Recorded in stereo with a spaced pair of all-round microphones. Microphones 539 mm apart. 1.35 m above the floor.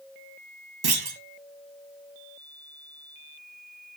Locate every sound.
0.8 s a clunk: 45° right (ahead or behind), 0.7 m